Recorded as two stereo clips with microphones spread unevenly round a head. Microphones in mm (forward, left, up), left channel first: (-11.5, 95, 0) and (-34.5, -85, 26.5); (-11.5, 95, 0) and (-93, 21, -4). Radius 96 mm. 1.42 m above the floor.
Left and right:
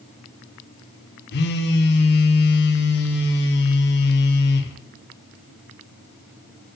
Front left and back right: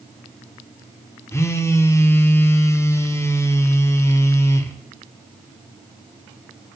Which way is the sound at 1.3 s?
110° left.